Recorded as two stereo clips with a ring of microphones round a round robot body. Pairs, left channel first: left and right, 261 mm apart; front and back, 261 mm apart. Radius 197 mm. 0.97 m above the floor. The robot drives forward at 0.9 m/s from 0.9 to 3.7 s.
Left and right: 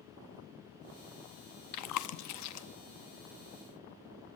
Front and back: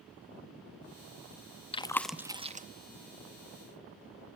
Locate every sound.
1.7 s chewing: 70° left, 1.0 m; by 2.7 s 120° left, 1.1 m